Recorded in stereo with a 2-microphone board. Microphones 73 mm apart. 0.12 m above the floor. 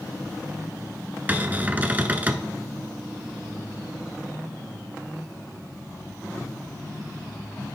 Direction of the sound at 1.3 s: 25° right (ahead or behind).